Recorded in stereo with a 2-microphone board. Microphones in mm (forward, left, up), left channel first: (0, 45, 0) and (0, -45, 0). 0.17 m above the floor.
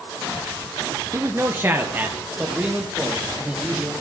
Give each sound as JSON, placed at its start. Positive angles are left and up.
{"t": 1.1, "sound": "a man speaking", "side_deg": -35, "distance_m": 1.9}